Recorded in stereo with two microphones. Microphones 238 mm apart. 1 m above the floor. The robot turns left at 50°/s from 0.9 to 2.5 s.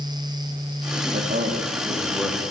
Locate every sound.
1.1 s a man speaking: 125° right, 2.5 m; by 2.5 s 165° left, 2.5 m